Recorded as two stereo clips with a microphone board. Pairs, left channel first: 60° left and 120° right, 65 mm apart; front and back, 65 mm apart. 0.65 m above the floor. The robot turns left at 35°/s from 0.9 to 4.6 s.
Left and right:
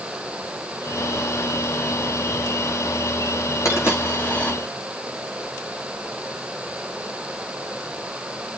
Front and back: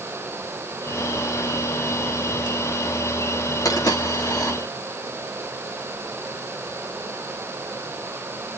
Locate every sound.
3.6 s a dropped coin: 15° left, 4.5 m; by 4.5 s 15° right, 4.5 m